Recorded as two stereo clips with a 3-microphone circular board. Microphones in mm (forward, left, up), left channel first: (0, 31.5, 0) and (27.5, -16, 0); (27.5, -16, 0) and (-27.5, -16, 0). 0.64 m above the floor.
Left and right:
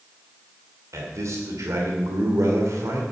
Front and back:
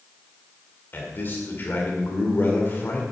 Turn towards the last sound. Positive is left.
turn(degrees=-50)